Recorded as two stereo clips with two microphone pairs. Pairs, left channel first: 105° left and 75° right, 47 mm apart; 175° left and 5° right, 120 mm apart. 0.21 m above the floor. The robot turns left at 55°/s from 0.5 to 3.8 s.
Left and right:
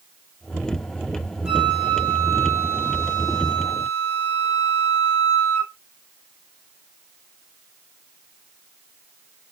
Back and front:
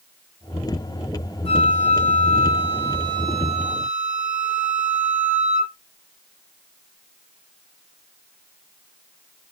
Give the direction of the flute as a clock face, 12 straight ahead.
5 o'clock.